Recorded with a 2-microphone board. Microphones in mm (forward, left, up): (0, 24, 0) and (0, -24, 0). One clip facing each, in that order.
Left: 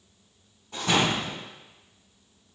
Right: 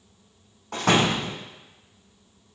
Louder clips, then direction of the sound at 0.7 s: Right 3 dB; 65° right (ahead or behind).